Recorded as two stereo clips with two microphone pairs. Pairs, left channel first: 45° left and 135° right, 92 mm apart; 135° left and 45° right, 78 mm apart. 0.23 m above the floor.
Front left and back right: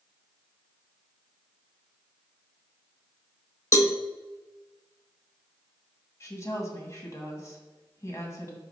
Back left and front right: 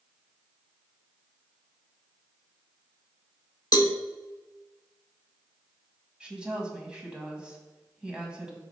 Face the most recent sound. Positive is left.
turn(degrees=25)